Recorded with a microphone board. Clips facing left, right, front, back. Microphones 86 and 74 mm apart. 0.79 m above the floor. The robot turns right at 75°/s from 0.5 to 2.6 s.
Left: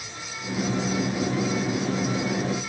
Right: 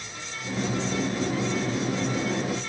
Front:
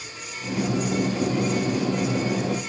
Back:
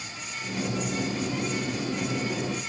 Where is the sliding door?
No sliding door in this recording.